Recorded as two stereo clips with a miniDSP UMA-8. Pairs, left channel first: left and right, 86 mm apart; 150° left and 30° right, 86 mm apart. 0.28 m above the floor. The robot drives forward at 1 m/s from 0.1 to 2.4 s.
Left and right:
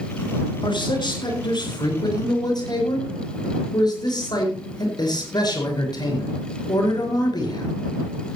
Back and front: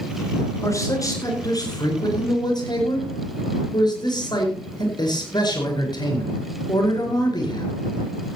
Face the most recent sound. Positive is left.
turn(degrees=120)